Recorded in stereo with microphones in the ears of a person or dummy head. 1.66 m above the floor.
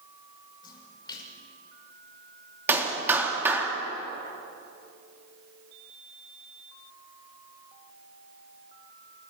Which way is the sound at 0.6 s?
25° left (ahead or behind).